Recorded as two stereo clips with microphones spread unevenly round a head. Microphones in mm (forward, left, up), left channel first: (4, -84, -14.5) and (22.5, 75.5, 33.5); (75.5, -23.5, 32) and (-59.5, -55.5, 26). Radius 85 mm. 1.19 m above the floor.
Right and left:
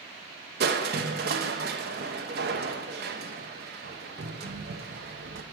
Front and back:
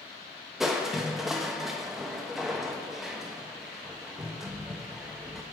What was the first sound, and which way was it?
Crushing, 105° left.